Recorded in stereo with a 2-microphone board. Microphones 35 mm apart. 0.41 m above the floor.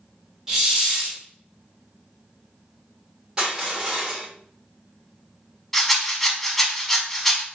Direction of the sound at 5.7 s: 5° left (ahead or behind).